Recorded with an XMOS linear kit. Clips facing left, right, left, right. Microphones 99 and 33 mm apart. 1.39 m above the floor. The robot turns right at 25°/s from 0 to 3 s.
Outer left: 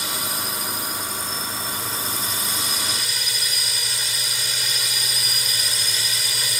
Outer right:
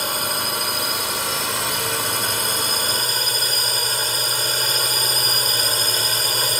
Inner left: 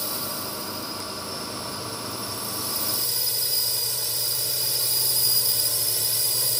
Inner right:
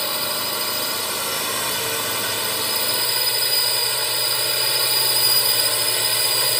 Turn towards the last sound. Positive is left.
turn(degrees=-50)